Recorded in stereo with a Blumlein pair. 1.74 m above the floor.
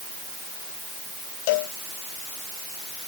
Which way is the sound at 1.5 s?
50° left.